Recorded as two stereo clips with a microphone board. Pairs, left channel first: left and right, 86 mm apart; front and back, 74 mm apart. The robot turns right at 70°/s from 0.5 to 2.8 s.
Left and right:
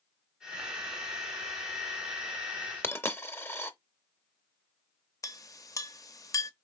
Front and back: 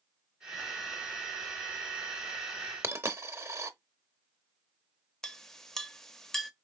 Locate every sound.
2.8 s a dropped coin: 145° left, 0.6 m
5.2 s a clink: 80° left, 0.5 m